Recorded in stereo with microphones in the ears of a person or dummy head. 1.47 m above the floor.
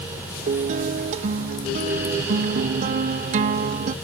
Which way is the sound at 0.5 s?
40° right (ahead or behind).